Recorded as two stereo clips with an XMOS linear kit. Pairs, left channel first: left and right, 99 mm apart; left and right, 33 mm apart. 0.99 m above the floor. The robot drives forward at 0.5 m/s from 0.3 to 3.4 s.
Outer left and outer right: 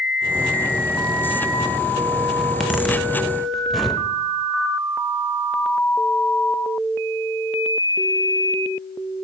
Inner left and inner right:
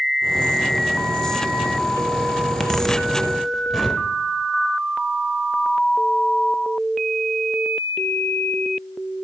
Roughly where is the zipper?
Centre.